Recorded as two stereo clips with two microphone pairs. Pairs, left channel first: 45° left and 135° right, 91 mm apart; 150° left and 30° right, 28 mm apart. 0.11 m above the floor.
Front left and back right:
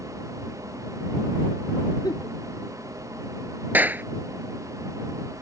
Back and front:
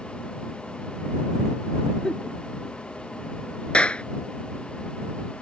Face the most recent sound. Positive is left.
turn(degrees=160)